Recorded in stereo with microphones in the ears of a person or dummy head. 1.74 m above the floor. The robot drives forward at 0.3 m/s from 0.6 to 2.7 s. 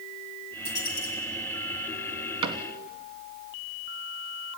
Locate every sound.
0.7 s a dropped coin: 65° left (ahead or behind), 5 m
2.4 s a cupboard door: 30° right (ahead or behind), 1.1 m